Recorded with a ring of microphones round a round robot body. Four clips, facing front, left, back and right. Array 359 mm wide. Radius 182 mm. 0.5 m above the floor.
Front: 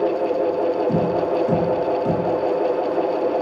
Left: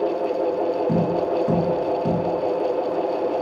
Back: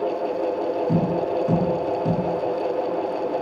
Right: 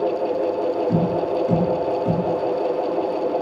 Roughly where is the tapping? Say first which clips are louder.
Even, front 3 dB; left.